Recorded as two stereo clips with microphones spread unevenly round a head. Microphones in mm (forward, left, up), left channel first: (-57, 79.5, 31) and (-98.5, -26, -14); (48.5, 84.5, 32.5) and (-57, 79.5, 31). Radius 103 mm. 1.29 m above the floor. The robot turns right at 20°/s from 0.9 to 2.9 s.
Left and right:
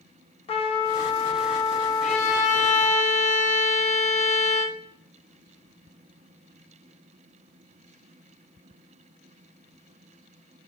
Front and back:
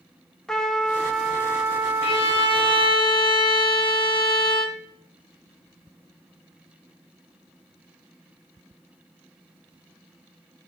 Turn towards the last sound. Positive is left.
turn(degrees=50)